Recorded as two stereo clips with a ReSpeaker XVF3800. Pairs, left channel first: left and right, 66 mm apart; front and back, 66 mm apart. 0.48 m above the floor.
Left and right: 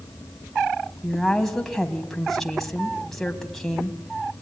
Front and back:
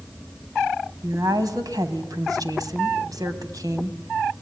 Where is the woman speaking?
175° left, 3 m.